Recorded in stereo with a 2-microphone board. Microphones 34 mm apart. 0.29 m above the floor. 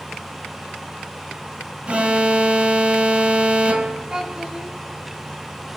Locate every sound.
1.9 s an alarm: 35° right (ahead or behind), 1.4 m
4.1 s a child speaking: 25° right (ahead or behind), 2 m